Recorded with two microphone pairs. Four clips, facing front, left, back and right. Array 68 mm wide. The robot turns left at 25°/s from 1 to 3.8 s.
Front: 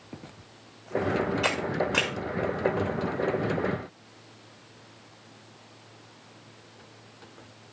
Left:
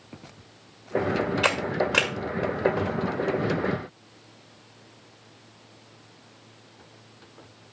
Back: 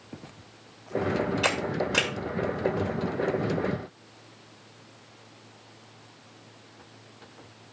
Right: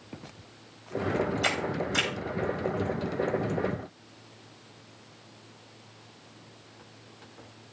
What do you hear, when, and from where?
1.4 s a camera shutter: 90° left, 6.5 m; by 2.1 s 75° left, 6.5 m